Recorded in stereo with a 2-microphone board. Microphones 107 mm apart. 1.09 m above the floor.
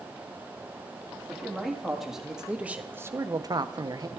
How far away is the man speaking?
About 2.5 m.